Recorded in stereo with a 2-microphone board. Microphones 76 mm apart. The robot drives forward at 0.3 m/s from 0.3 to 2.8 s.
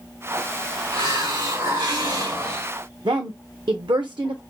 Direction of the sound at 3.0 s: 85° right.